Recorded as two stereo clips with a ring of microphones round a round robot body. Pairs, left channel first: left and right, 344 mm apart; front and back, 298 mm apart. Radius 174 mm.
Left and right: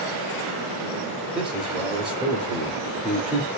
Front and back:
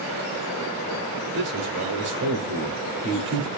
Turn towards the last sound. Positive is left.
turn(degrees=-175)